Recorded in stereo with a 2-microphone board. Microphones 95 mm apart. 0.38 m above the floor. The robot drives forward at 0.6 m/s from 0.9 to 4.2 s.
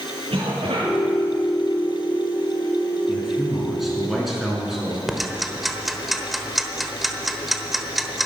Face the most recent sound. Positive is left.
turn(degrees=0)  # may be behind; listen again after turning